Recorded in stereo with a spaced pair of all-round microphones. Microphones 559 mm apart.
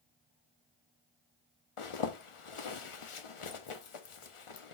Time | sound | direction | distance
1.8 | a zipper | 60° left (ahead or behind) | 0.6 m